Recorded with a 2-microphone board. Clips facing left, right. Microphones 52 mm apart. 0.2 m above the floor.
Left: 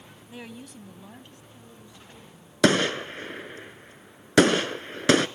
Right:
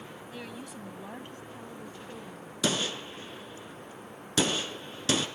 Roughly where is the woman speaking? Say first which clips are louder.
Left 2 dB; centre.